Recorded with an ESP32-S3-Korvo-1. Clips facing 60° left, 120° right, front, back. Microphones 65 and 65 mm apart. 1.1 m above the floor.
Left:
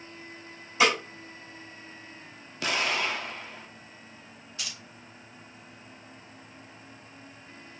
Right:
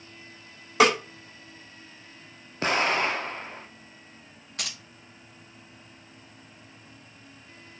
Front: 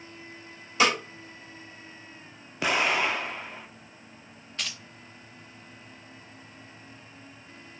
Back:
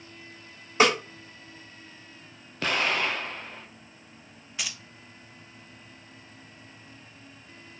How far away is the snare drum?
About 1.8 m.